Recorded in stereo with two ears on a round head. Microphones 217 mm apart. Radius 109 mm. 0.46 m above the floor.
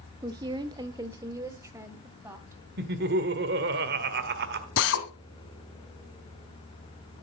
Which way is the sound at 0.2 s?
15° right (ahead or behind).